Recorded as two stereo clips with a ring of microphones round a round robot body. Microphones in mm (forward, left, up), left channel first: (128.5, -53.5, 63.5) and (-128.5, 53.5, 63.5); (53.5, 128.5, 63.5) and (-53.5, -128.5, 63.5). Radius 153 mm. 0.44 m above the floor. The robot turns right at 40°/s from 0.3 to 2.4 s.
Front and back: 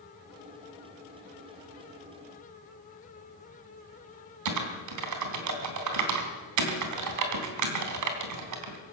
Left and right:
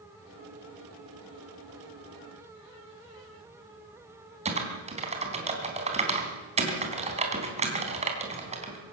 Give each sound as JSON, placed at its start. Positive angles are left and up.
{"t": 4.5, "sound": "typing on a keyboard", "azimuth_deg": 180, "distance_m": 3.5}